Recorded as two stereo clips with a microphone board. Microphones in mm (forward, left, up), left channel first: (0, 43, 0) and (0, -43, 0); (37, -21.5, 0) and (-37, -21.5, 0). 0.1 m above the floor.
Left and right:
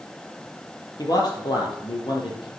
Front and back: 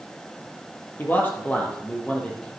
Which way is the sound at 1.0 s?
60° left.